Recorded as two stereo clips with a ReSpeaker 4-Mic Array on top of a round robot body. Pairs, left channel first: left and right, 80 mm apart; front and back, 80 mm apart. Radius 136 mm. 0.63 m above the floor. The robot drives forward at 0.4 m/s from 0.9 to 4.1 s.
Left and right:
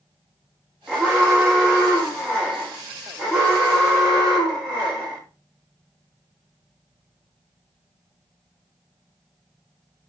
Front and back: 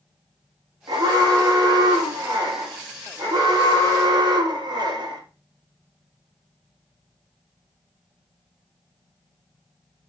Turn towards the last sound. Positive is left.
turn(degrees=175)